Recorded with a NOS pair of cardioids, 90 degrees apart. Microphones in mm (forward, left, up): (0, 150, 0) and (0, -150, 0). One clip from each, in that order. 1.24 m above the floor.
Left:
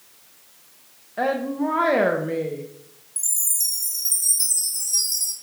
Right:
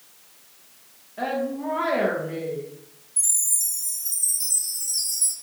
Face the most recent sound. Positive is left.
turn(degrees=55)